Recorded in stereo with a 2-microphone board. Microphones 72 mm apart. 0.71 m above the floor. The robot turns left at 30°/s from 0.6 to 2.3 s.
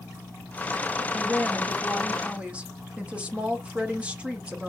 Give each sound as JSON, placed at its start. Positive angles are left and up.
{"t": 1.1, "sound": "a woman speaking", "side_deg": -5, "distance_m": 0.9}